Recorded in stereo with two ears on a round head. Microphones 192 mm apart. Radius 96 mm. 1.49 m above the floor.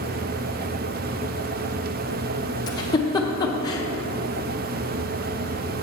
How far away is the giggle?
About 0.7 m.